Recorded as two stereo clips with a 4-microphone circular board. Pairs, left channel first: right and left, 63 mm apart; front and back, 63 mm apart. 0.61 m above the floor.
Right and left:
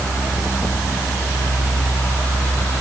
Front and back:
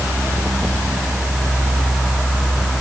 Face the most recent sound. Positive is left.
No sound to turn to.